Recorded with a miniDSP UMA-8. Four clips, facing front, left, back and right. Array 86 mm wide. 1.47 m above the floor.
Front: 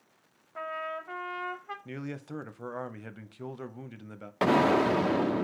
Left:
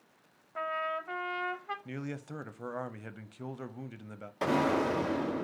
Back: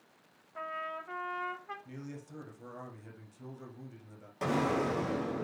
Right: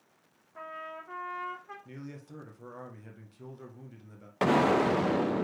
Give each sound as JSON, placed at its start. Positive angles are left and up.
{"t": 0.6, "sound": "a trumpet", "azimuth_deg": 70, "distance_m": 0.7}
{"t": 1.9, "sound": "a man speaking", "azimuth_deg": 40, "distance_m": 0.6}
{"t": 4.4, "sound": "an explosion", "azimuth_deg": -45, "distance_m": 0.8}